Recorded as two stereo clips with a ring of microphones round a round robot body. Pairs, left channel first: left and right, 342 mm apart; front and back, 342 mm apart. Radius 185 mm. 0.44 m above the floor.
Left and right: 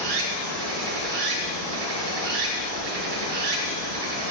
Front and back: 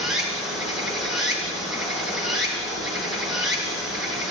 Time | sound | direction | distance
0.0 | running water | 90° right | 2 m